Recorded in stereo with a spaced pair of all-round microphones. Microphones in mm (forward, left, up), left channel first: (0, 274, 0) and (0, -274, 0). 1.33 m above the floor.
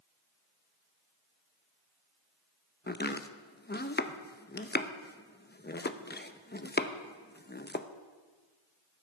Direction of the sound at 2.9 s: 20° left (ahead or behind).